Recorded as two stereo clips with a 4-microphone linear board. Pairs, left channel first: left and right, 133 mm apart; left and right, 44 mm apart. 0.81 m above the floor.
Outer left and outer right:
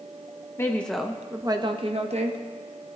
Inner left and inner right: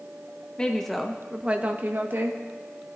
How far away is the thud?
No thud in this recording.